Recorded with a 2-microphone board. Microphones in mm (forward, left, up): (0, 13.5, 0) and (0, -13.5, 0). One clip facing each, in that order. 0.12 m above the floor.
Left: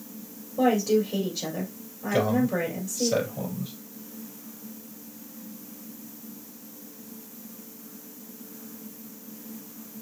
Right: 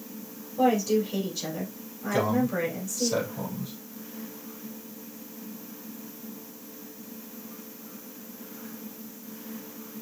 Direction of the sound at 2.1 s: 25° left (ahead or behind).